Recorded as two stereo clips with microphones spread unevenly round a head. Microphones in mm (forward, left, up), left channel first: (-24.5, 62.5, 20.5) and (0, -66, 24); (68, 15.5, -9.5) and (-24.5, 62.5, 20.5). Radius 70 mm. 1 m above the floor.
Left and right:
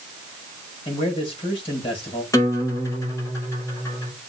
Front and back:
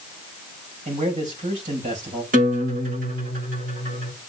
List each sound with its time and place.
0.8 s a man speaking: 150° left, 5.5 m
2.3 s a guitar: 170° left, 5 m